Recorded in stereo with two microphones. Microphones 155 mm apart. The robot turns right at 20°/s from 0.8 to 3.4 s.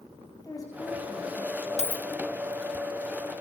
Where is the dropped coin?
50° left (ahead or behind), 0.5 m; by 2.0 s 55° left (ahead or behind), 0.5 m.